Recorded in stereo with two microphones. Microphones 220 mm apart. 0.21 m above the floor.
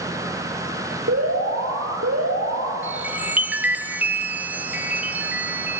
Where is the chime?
5° right (ahead or behind), 0.9 m.